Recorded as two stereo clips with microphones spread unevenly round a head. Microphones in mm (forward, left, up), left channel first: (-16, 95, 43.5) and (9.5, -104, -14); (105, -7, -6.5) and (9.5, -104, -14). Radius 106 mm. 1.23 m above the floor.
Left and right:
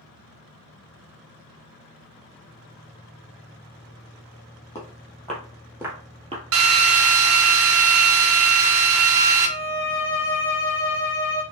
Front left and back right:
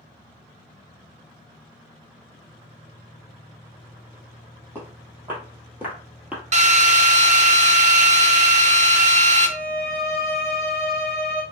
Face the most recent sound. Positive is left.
turn(degrees=160)